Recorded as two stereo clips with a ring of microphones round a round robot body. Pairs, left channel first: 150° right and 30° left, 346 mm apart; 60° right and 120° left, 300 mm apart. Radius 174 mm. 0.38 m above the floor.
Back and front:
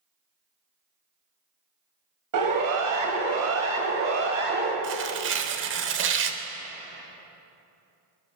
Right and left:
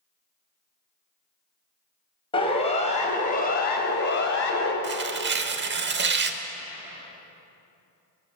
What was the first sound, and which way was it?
A siren, 10° left.